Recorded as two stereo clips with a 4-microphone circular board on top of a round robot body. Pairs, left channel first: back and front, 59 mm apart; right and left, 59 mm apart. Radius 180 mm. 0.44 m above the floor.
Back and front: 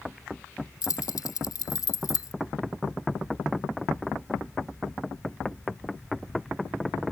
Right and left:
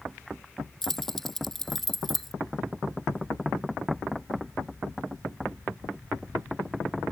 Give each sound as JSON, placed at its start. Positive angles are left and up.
{"t": 0.8, "sound": "keys jangling", "azimuth_deg": -175}